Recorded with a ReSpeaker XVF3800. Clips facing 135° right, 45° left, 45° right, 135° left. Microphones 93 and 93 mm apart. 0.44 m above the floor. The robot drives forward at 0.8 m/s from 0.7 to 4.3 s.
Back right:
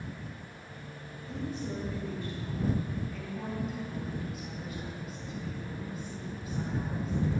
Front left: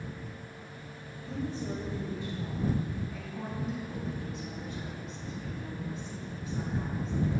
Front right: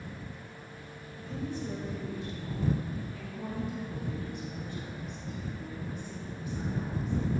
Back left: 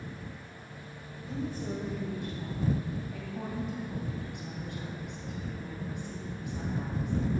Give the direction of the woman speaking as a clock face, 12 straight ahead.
9 o'clock.